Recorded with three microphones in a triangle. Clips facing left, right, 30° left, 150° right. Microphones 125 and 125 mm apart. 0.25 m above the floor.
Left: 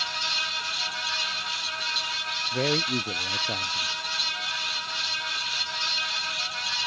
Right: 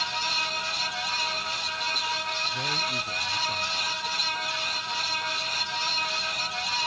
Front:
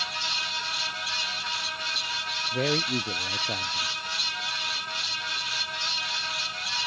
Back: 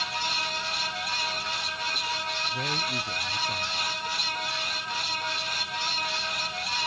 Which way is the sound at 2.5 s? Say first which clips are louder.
Left 11 dB, front 9 dB; 60° left.